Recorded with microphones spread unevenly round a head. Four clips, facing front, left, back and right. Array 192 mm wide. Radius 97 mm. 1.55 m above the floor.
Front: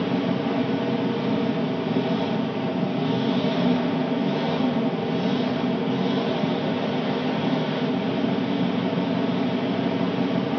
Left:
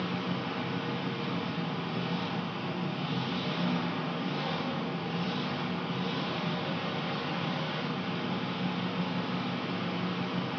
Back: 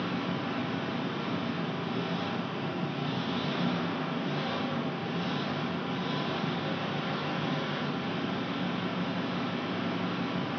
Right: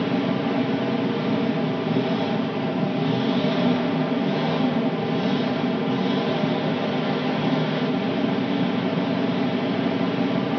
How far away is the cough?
No cough in this recording.